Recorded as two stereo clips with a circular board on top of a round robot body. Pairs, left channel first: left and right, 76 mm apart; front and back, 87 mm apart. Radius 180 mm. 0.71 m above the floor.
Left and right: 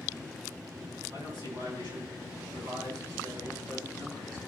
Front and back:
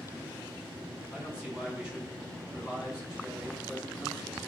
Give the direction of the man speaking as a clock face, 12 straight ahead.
3 o'clock.